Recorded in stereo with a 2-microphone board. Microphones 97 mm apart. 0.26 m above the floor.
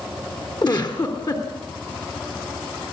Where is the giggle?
45° left (ahead or behind), 3.5 m.